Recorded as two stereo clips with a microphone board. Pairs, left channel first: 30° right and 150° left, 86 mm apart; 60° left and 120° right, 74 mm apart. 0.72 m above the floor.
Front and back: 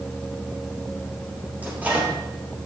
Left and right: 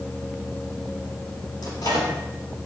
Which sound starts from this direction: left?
A microwave, at 1.6 s.